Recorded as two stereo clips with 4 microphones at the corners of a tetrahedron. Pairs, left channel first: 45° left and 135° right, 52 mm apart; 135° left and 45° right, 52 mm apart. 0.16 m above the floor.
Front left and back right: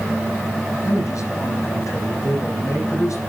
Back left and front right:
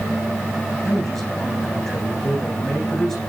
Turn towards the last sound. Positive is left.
turn(degrees=55)